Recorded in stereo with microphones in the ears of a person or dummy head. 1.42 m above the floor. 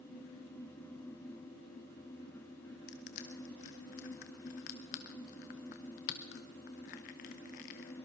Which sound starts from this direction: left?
Crushing, at 2.9 s.